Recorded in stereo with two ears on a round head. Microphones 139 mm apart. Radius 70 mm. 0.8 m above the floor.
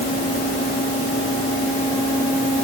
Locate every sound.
Only background noise.